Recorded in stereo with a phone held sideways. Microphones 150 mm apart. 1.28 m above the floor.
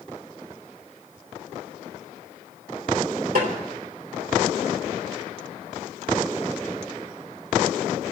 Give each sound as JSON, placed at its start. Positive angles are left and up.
{"t": 3.4, "sound": "a snare drum", "side_deg": -75, "distance_m": 4.0}